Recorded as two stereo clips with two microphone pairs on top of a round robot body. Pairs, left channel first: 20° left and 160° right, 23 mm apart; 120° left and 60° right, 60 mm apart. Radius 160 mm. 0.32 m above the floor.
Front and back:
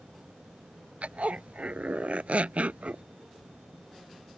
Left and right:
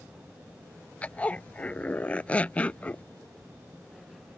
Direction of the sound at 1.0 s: 170° right.